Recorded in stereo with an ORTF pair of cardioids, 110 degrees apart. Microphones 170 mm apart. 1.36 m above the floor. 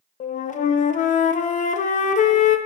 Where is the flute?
45° left, 0.5 m.